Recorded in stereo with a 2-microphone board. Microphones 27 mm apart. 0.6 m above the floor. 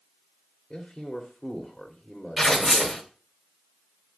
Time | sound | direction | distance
0.7 | a man speaking | 5° left (ahead or behind) | 1.7 m
2.4 | tearing paper | 10° left (ahead or behind) | 1.9 m